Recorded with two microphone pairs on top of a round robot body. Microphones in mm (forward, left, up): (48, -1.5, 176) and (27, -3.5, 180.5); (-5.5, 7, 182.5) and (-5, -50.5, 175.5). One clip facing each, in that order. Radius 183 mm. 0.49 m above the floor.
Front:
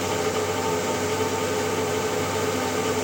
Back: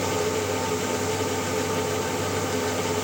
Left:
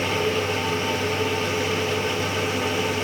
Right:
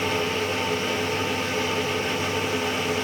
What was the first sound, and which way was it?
Only background noise.